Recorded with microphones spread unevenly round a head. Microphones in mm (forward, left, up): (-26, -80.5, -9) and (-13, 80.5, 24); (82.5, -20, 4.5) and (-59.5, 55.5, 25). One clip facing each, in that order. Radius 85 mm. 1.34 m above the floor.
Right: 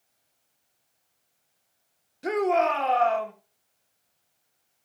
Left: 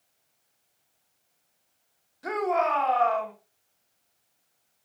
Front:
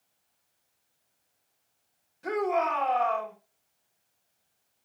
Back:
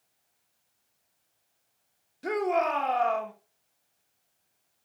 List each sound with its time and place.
2.2 s a shout: 150° right, 4 m